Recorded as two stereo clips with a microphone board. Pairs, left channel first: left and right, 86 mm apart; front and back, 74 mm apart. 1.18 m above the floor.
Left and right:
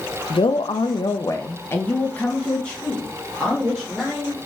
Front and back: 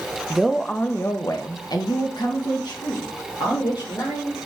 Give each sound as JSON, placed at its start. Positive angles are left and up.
{"t": 0.3, "sound": "a man speaking", "azimuth_deg": 100, "distance_m": 0.5}